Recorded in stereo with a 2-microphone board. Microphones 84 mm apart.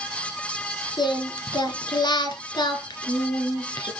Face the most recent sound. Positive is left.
turn(degrees=60)  # may be behind; listen again after turning